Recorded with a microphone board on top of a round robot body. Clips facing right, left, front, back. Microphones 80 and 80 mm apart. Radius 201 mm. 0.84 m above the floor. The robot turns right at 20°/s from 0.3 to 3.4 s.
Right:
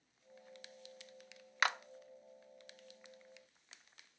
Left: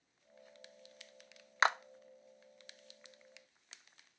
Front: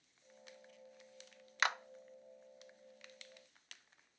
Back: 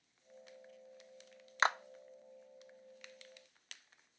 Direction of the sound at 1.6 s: 140° left.